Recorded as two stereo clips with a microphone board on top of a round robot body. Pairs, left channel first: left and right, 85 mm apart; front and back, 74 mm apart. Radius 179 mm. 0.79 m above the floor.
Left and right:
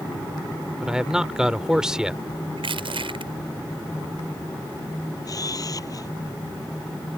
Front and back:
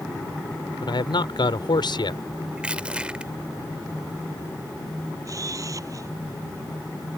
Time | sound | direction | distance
0.8 | a man speaking | 10° right | ?
2.6 | crushing | 105° right | ?
5.2 | a camera shutter | 135° left | ?